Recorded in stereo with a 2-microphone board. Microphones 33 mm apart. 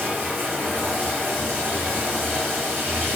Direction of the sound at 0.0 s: 85° right.